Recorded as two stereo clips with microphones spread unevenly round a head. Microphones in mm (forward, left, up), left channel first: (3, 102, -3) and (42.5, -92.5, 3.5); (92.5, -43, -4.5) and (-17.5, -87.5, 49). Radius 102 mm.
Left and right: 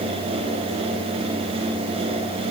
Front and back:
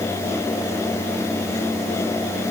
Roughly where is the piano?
I don't hear a piano.